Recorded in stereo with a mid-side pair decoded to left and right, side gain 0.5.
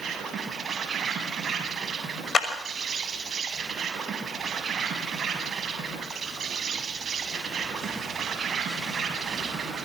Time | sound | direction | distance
0.0 | an insect | 45° right | 8 m
2.3 | a clap | 35° left | 6 m